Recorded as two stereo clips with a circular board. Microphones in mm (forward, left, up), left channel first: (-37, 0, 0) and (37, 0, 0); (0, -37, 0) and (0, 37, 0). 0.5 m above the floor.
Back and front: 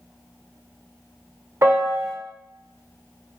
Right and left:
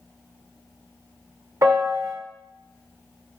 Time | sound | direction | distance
1.6 | a piano | 45° left | 0.9 m